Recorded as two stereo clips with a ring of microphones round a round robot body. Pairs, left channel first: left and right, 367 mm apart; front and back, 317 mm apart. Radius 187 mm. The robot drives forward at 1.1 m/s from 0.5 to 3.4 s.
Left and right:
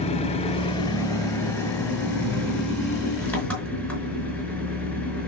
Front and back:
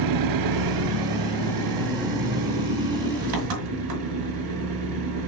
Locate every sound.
0.0 s an engine running: 165° left, 0.9 m; by 5.3 s 175° left, 4 m